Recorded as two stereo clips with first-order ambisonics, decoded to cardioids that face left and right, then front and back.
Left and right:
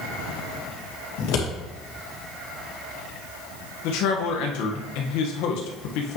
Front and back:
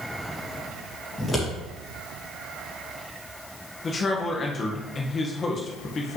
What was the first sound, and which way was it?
Scissors, 80° left.